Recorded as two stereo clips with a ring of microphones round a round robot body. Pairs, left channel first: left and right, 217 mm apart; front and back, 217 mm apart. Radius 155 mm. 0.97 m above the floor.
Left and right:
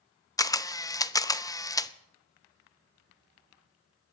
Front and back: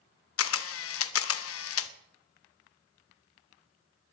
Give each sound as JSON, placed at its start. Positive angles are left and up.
{"t": 0.4, "sound": "a camera shutter", "azimuth_deg": 15, "distance_m": 0.9}